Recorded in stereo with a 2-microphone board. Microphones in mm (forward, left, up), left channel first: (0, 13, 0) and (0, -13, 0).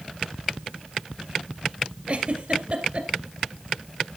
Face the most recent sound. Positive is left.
turn(degrees=-45)  # may be behind; listen again after turning